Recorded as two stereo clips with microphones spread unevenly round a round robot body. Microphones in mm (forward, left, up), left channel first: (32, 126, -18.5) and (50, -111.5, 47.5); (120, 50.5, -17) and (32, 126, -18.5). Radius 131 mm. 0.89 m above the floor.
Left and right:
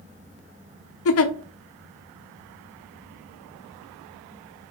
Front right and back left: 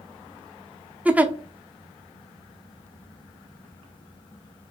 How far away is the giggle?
About 0.7 m.